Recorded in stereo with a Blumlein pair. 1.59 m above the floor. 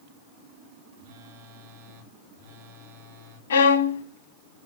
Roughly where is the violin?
Ahead left.